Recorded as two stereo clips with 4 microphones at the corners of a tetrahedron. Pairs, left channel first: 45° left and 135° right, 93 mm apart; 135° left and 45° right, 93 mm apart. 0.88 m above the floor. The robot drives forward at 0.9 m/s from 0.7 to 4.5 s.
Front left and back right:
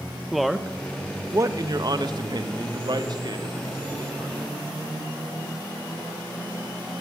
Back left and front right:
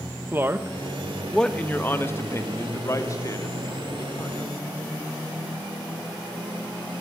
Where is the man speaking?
45° right, 0.8 m; by 4.5 s 175° right, 3.5 m.